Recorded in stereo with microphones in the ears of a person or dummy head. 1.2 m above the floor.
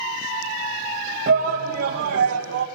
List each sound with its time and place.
1.3 s a shout: 45° right (ahead or behind), 1.7 m; by 2.7 s 70° right (ahead or behind), 1.1 m